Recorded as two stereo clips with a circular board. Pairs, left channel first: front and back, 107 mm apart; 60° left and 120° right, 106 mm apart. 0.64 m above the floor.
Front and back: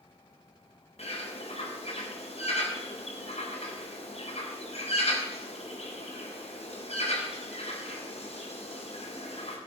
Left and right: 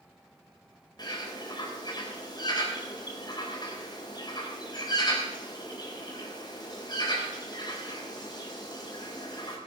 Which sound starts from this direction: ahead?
A bird, at 1.0 s.